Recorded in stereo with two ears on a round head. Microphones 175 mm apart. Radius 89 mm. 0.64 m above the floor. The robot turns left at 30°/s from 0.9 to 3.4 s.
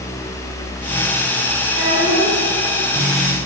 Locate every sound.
1.7 s a child speaking: 70° right (ahead or behind), 4.5 m; by 2.4 s 50° right (ahead or behind), 4.5 m